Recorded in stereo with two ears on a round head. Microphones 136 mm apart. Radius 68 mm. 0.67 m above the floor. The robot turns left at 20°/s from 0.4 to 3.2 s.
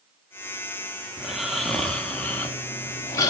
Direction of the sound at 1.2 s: 170° right.